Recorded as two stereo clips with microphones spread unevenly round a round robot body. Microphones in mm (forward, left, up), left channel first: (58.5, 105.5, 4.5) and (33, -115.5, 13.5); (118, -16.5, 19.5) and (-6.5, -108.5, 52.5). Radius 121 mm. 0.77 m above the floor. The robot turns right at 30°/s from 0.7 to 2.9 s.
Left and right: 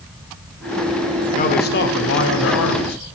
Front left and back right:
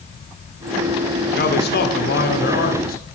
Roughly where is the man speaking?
Ahead left.